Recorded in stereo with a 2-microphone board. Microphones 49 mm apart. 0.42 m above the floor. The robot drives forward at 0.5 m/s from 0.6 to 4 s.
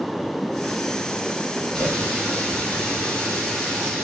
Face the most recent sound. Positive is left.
turn(degrees=10)  # may be behind; listen again after turning